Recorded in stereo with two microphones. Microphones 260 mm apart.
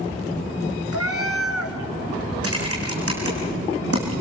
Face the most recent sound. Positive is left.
turn(degrees=-60)  # may be behind; listen again after turning